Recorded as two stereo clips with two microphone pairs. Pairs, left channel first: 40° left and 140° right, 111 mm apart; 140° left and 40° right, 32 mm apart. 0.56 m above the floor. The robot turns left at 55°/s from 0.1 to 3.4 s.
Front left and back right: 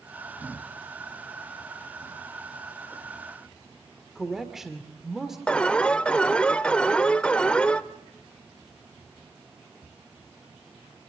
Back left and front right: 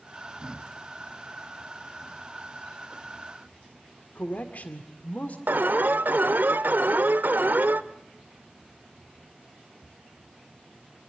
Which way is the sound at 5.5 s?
40° right.